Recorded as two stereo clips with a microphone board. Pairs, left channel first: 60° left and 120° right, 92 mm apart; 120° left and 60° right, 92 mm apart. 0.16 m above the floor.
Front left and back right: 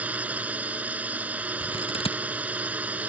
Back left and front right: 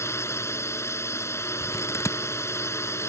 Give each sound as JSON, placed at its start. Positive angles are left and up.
{"t": 0.0, "sound": "a drone", "azimuth_deg": 170}
{"t": 1.6, "sound": "scissors", "azimuth_deg": 60}